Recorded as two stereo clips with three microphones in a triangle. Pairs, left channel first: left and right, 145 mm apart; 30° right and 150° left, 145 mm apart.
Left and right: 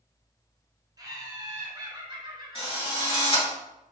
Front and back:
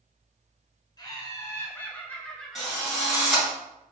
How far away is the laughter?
About 1.4 m.